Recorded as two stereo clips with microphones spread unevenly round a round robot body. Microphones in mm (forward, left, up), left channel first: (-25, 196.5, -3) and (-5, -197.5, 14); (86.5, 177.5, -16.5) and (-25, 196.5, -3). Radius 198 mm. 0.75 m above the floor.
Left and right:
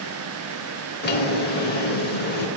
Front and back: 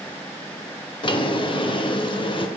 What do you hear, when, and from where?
1.0 s a drawer: 30° left, 0.6 m